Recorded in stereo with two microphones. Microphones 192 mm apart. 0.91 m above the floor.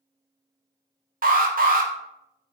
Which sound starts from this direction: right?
An alarm, at 1.2 s.